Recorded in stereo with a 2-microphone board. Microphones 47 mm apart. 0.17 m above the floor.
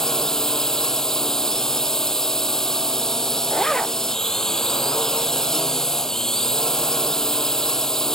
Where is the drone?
10° left (ahead or behind).